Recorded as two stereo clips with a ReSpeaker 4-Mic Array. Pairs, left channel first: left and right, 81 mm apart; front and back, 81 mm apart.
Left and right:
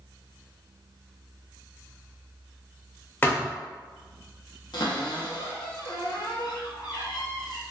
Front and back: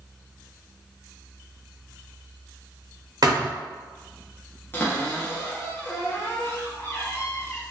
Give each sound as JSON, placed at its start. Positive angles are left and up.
{"t": 3.2, "sound": "a thud", "azimuth_deg": 155, "distance_m": 1.2}
{"t": 4.7, "sound": "a cupboard door", "azimuth_deg": 60, "distance_m": 0.8}